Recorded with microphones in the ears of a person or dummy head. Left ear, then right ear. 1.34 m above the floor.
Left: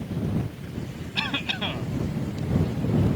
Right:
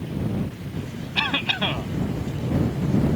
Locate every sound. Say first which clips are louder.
1.1 s a cough: right 5 dB; 15° right (ahead or behind)